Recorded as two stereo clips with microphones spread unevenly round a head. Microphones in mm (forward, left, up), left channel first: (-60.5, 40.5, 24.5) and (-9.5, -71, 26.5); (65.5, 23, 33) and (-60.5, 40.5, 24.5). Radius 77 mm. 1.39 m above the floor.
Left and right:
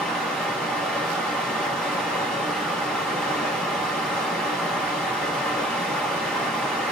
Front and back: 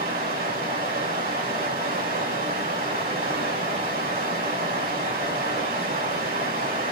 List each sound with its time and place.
0.0 s running water: 160° right, 2 m